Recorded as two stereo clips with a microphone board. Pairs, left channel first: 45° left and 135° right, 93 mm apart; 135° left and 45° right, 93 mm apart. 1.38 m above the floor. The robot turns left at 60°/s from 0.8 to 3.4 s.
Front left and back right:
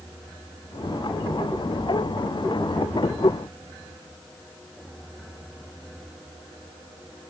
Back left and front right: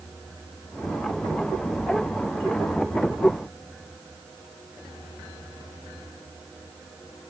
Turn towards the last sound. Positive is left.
No sound to turn to.